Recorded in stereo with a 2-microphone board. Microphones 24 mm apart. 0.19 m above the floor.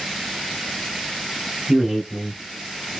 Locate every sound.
1.7 s a man speaking: 10° right (ahead or behind), 1.7 m; by 3.0 s 15° left (ahead or behind), 1.7 m